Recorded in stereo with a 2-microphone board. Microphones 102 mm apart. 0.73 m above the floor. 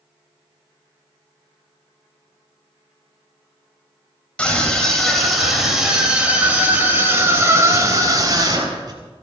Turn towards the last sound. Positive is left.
turn(degrees=-40)  # may be behind; listen again after turning